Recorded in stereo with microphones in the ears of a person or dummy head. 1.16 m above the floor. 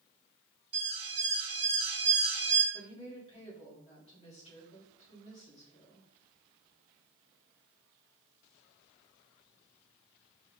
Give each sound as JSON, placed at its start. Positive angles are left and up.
{"t": 0.7, "sound": "an alarm", "side_deg": -25, "distance_m": 1.3}
{"t": 2.7, "sound": "a woman speaking", "side_deg": 30, "distance_m": 1.9}